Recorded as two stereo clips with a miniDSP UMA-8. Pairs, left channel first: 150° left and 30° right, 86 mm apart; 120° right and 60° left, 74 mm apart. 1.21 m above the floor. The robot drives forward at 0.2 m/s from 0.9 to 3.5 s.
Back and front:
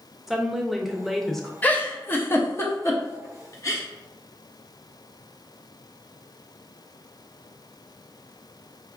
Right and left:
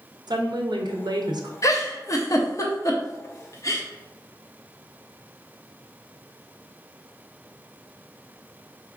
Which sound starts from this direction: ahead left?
A woman speaking, at 0.3 s.